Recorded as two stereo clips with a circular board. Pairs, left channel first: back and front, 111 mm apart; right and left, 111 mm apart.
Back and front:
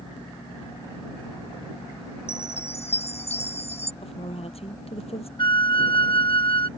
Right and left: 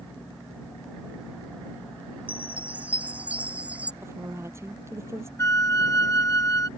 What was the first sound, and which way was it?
A chime, 165° left.